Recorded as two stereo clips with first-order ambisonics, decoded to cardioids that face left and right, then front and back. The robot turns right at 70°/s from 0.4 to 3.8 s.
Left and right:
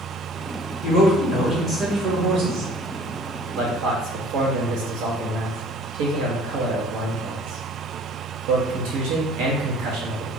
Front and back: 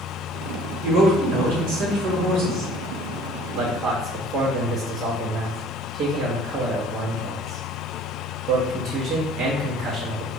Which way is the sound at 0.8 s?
115° left.